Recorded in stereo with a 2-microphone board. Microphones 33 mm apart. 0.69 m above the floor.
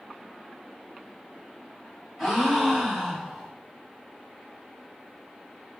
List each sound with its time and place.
2.2 s a gasp: 5° left (ahead or behind), 4.5 m